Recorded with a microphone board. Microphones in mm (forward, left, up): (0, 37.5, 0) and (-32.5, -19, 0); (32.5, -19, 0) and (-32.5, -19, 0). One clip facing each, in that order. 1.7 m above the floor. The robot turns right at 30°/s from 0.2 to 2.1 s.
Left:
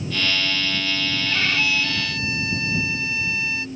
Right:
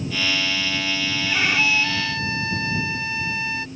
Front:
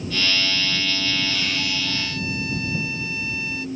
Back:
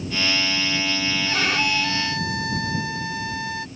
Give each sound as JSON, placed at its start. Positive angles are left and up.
{"t": 1.3, "sound": "a violin", "azimuth_deg": 165}